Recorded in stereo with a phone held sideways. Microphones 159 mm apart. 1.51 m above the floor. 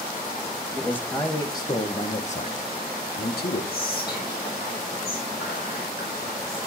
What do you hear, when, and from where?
0.7 s a man speaking: 10° left (ahead or behind), 2 m; by 3.6 s 85° left, 1.5 m
3.7 s whispering: 70° left (ahead or behind), 1.4 m